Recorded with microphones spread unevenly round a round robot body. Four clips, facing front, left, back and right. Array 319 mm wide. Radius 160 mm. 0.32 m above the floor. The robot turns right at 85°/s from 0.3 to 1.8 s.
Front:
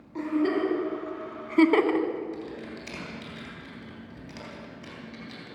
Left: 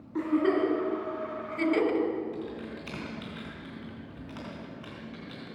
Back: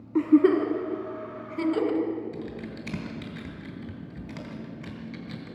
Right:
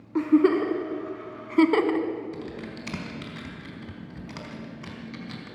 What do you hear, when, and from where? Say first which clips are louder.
0.1 s a giggle: right 6 dB, back 7 dB; 155° right, 1.8 m; by 2.1 s 25° right, 1.8 m
2.3 s typing on a keyboard: right 1 dB, back 1 dB; 145° right, 3 m